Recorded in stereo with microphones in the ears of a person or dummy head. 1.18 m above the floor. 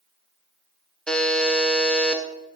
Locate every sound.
1.1 s a buzzer: 5° left (ahead or behind), 0.8 m